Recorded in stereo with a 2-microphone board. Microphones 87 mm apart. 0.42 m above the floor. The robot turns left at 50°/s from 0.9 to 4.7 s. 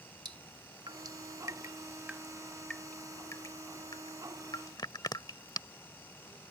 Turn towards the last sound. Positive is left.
turn(degrees=50)  # may be behind; listen again after turning